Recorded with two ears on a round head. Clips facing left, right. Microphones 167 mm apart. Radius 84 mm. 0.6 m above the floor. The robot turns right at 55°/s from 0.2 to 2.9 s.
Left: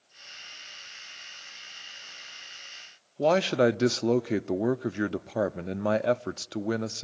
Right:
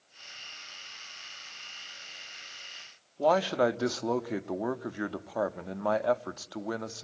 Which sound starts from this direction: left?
A man speaking, at 3.2 s.